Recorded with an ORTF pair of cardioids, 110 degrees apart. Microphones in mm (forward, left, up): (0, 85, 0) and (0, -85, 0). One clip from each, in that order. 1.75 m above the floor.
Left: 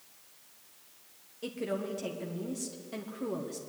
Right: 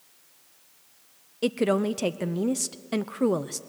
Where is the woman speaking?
65° right, 0.8 m.